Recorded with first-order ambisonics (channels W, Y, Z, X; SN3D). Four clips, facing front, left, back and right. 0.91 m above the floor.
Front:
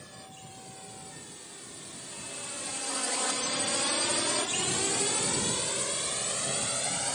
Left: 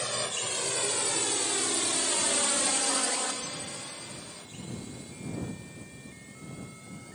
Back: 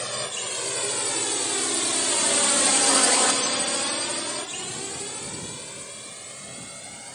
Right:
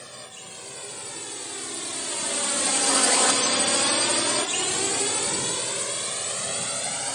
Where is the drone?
150° left; by 7.2 s 60° right.